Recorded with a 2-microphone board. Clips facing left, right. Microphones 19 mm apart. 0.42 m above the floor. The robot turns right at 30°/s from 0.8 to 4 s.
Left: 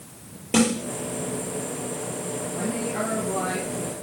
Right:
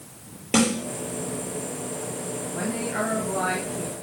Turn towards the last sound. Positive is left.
turn(degrees=-60)